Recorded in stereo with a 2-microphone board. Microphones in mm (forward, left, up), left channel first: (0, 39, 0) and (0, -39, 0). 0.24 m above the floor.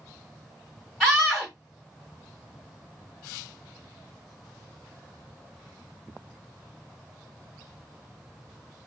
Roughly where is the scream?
Centre.